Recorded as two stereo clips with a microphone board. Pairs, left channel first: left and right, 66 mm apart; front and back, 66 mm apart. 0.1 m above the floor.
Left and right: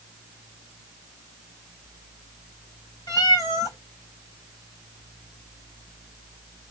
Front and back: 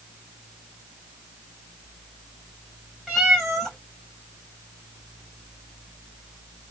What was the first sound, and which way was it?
A cat meowing, 95° left.